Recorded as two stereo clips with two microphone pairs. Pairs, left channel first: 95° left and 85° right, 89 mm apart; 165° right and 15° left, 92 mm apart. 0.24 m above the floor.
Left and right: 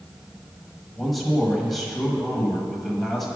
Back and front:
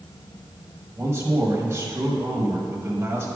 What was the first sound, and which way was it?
A man speaking, 10° left.